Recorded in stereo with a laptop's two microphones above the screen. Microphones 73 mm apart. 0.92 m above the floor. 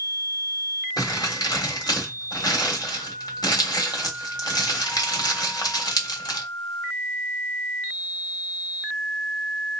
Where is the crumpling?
70° left (ahead or behind), 1.4 m.